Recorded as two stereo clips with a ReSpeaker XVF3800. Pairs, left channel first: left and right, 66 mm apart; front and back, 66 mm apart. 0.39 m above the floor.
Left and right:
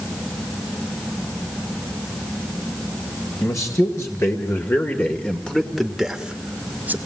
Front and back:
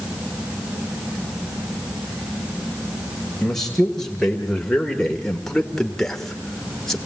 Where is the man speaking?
85° left, 2 m; by 7.0 s 75° right, 1.6 m.